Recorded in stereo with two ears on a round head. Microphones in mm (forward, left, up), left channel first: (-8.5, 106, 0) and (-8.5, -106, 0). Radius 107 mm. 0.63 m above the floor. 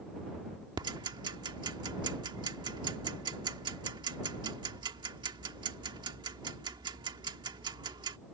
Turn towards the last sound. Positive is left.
turn(degrees=-20)  # may be behind; listen again after turning